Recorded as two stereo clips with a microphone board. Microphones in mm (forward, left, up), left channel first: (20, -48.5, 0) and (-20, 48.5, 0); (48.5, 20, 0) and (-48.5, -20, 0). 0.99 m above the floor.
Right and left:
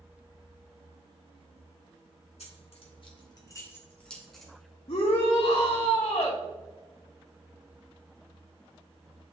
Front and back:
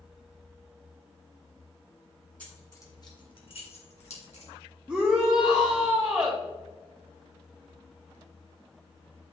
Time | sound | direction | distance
2.4 | keys jangling | 55° right | 1.8 m
4.9 | a shout | 75° right | 1.1 m